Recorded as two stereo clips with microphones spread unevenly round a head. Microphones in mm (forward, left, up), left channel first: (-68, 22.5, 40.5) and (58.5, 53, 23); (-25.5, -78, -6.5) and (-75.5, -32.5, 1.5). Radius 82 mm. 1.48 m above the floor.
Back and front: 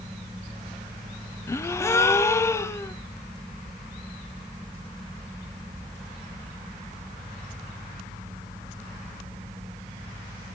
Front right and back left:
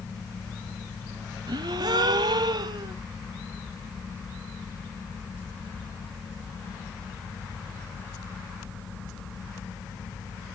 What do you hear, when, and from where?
1.5 s a gasp: 125° left, 0.5 m